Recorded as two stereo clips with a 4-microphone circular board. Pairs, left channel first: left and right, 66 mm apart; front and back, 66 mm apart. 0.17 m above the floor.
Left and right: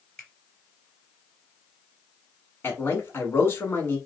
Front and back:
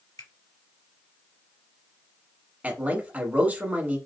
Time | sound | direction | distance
0.2 | a finger snap | 10° left | 2.5 m
2.6 | a man speaking | 125° left | 1.3 m